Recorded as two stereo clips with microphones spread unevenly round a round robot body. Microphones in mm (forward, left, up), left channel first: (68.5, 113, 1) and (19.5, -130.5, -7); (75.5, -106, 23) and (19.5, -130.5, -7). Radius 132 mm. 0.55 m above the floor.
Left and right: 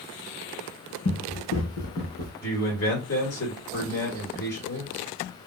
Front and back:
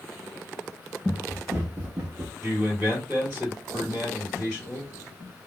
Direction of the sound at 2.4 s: 125° left.